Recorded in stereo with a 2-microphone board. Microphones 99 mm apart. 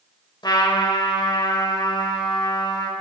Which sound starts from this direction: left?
A trumpet, at 0.4 s.